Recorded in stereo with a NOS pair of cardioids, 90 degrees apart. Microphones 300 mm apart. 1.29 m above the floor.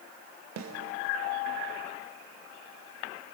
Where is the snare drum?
60° right, 2.5 m.